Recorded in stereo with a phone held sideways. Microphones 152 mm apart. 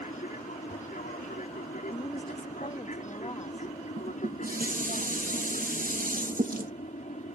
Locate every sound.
0.0 s an aircraft: 55° left (ahead or behind); by 7.3 s 50° left (ahead or behind)
1.9 s a woman speaking: 30° left (ahead or behind)
4.0 s dishes clattering: 65° right (ahead or behind)